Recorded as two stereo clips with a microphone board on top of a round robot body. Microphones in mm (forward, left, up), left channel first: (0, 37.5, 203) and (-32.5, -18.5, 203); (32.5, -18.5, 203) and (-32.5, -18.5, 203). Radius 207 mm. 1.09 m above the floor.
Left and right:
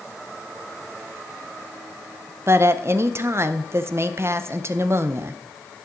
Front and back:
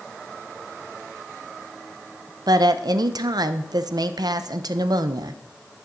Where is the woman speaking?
170° right, 0.5 m.